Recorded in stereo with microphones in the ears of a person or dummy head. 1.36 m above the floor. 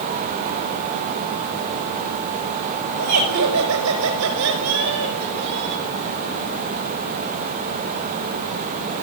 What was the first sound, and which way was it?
Laughter, 90° right.